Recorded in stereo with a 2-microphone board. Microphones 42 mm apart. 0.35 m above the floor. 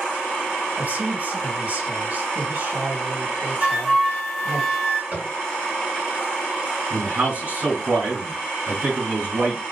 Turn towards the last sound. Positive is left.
turn(degrees=-50)  # may be behind; listen again after turning